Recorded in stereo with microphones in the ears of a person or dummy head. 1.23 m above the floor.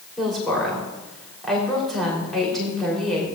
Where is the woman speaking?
Centre (ahead or behind), 3.5 m.